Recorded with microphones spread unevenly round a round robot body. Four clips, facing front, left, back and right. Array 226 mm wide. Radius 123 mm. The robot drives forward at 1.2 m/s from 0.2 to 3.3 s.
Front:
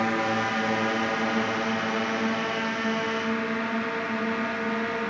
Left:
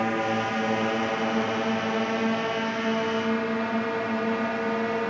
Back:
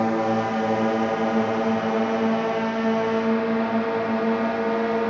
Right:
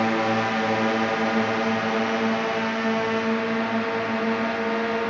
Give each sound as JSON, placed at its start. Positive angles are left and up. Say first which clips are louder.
{"t": 0.0, "sound": "a drone", "louder": "right 3 dB, back 4 dB", "azimuth_deg": -150}